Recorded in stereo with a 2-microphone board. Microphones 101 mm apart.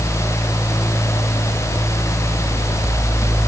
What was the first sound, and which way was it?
Only background noise.